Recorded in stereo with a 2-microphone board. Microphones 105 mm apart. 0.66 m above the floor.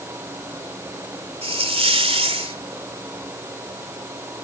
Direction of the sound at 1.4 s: 65° right (ahead or behind).